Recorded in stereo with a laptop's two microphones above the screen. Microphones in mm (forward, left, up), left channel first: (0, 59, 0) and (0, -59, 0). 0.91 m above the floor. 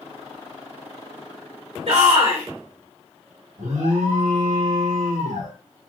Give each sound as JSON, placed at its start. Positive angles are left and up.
{"t": 1.9, "sound": "a shout", "side_deg": -70, "distance_m": 2.5}
{"t": 3.6, "sound": "an alarm", "side_deg": -90, "distance_m": 2.0}